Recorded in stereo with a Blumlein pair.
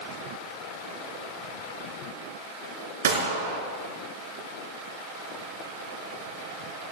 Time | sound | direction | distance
3.0 | a gunshot | 65° right | 3.5 m